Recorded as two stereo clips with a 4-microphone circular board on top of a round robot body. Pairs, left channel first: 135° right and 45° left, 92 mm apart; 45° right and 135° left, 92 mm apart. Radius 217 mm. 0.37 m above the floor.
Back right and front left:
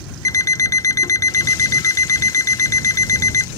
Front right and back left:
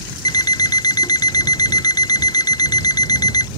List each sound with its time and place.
0.2 s an alarm clock: 85° right